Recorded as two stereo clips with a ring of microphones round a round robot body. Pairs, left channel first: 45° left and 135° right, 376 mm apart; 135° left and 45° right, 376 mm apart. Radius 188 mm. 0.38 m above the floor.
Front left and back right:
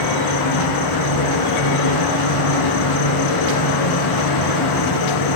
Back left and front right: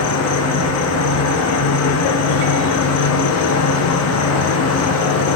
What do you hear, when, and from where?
0.0 s an insect: 80° left, 1.6 m